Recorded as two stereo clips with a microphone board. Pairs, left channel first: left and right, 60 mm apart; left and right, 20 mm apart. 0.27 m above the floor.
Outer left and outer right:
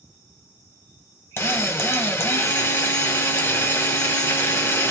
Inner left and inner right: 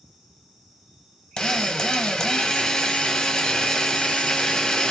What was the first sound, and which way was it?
A drill, 45° left (ahead or behind).